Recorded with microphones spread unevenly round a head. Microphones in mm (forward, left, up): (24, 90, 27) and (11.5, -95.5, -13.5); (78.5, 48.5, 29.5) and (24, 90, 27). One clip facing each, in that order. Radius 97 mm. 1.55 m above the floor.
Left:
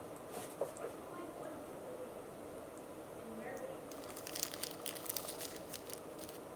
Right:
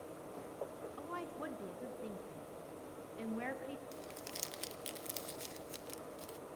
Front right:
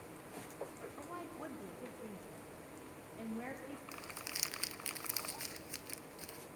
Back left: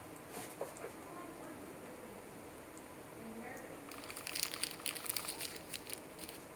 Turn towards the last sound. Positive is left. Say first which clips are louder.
# even, even
turn(degrees=20)